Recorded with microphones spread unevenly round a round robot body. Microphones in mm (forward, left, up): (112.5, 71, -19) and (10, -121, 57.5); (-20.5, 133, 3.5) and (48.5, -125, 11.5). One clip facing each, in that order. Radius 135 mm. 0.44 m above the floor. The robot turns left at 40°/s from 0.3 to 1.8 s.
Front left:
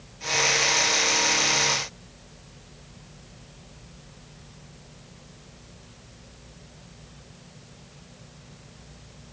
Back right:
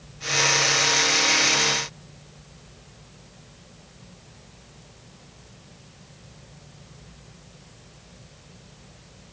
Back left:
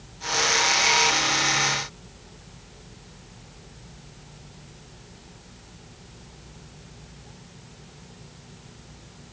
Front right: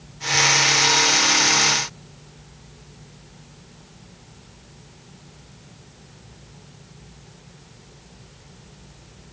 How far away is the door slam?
No door slam in this recording.